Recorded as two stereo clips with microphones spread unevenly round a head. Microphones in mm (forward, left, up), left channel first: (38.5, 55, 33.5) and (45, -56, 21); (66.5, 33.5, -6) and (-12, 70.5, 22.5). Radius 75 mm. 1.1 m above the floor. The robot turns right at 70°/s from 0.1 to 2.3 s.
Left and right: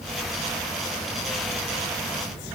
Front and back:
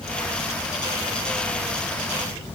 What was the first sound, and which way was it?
Only background noise.